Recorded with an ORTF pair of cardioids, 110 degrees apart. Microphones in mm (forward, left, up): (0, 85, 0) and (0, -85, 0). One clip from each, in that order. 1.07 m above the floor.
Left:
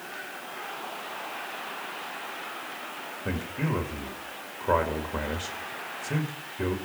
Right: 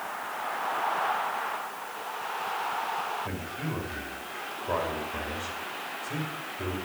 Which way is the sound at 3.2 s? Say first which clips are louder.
Left 3 dB; 55° left.